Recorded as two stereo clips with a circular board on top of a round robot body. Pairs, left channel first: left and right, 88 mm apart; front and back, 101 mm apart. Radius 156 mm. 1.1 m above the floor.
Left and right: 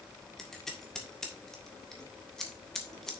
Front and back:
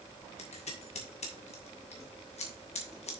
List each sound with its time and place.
0.4 s scissors: 5° left, 1.7 m